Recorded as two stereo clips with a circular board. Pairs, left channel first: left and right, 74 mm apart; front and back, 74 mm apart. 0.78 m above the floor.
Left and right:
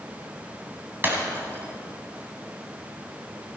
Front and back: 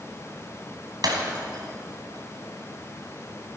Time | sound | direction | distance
1.0 | breaking glass | 150° right | 2.5 m